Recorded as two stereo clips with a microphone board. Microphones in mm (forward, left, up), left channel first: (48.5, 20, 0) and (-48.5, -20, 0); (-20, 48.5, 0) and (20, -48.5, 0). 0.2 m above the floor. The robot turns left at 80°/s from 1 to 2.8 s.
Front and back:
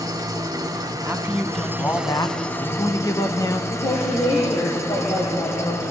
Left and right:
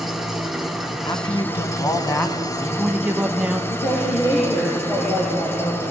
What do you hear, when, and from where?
0.0 s an engine running: 155° right, 1.4 m; by 5.9 s 65° left, 1.4 m
1.1 s a man speaking: 145° left, 1.3 m; by 3.6 s 5° left, 1.3 m
3.7 s a woman speaking: 55° left, 4 m